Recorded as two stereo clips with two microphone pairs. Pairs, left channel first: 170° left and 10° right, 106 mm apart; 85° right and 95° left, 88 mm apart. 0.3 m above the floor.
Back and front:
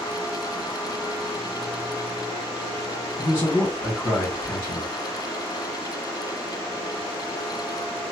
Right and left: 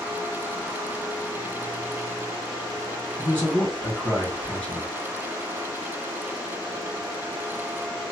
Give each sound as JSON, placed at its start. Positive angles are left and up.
{"t": 3.2, "sound": "a man speaking", "azimuth_deg": -150, "distance_m": 1.8}